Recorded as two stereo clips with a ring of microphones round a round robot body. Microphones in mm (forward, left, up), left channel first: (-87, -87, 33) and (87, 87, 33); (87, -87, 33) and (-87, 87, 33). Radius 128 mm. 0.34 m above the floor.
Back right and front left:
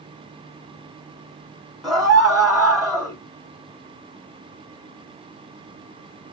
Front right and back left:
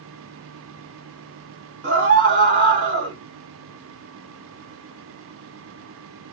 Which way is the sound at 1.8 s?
135° left.